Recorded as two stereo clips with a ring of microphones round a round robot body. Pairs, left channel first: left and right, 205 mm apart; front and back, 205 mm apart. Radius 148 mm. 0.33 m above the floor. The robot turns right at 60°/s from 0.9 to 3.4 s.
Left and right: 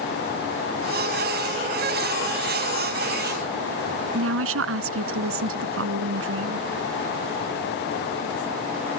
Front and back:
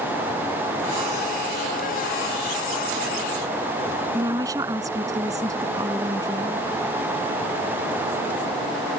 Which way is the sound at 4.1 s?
100° right.